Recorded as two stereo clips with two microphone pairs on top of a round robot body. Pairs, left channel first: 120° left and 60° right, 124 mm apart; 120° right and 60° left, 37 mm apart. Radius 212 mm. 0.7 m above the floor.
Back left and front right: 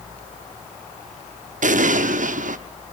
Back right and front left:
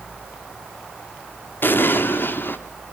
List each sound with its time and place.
1.6 s an explosion: 80° right, 1.0 m